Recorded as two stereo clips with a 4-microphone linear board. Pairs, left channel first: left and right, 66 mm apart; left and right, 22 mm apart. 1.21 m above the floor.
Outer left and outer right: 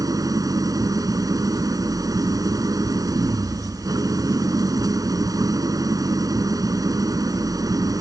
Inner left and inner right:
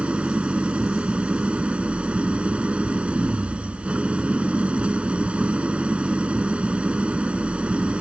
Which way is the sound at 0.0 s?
70° right (ahead or behind).